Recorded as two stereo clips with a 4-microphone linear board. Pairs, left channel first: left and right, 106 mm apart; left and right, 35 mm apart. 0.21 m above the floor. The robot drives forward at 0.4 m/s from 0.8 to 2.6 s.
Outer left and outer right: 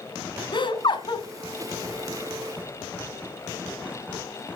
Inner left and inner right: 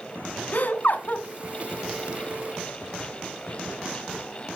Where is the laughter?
50° left (ahead or behind), 1.4 m.